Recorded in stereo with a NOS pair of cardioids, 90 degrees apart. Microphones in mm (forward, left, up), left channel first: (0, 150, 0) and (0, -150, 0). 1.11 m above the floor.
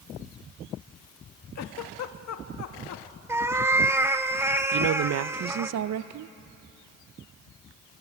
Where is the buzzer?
I don't hear a buzzer.